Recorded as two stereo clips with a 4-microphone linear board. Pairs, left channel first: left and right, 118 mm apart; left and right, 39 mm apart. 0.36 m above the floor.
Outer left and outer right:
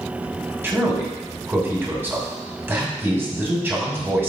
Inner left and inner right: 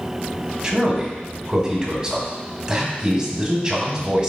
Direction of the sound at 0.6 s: 20° right (ahead or behind).